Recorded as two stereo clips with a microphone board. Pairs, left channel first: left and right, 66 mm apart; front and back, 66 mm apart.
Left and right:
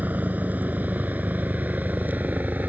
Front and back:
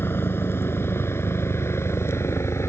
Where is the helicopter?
35° right; by 2.7 s 30° right.